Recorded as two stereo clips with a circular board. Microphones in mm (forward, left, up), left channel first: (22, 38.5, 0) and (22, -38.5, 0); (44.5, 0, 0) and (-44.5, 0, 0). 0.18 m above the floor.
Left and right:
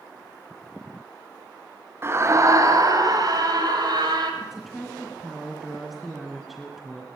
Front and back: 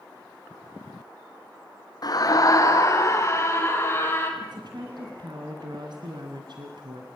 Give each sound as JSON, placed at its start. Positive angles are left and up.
{"t": 2.0, "sound": "a scream", "azimuth_deg": -35, "distance_m": 2.5}
{"t": 4.4, "sound": "a woman speaking", "azimuth_deg": 180, "distance_m": 2.5}